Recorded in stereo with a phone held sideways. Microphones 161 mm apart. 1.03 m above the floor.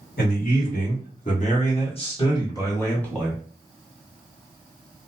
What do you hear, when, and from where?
0.2 s a man speaking: 65° left (ahead or behind), 1.7 m; by 3.4 s centre (ahead or behind), 1.2 m